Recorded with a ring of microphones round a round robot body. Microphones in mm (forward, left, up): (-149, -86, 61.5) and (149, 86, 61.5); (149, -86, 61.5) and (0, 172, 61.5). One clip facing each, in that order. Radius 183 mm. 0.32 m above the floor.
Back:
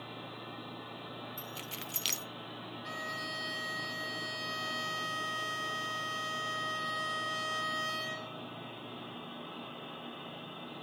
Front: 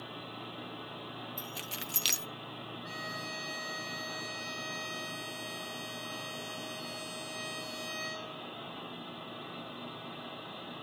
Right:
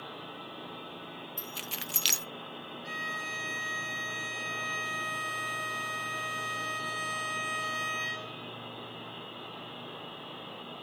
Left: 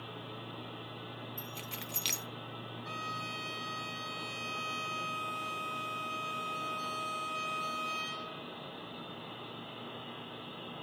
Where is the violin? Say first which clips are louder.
Even, right 1 dB; 125° right, 4 m.